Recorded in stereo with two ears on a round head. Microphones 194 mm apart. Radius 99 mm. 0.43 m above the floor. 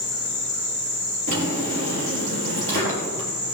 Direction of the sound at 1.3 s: 65° right (ahead or behind).